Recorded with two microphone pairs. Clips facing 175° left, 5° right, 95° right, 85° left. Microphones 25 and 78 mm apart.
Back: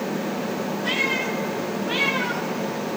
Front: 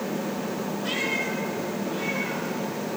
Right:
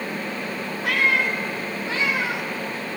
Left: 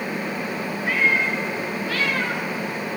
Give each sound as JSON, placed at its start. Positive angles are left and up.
{"t": 0.8, "sound": "a cat meowing", "azimuth_deg": -100, "distance_m": 1.7}